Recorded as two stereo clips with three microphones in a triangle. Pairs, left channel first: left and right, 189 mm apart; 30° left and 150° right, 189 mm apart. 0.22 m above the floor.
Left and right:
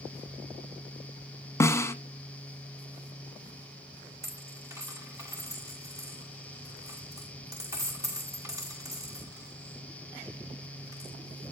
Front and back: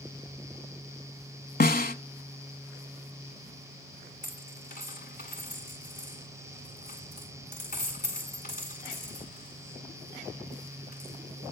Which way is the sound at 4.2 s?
15° right.